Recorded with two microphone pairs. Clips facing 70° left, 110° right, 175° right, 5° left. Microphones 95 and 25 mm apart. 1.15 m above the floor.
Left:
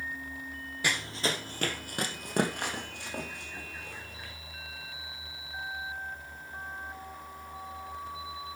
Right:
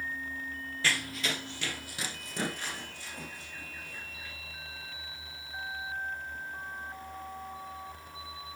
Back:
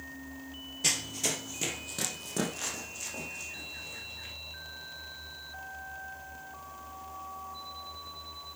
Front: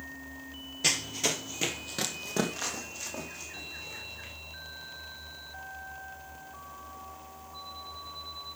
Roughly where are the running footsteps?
Ahead left.